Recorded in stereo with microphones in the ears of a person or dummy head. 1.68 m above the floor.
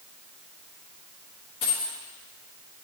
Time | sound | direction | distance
1.6 | a dropped coin | 30° left (ahead or behind) | 1.3 m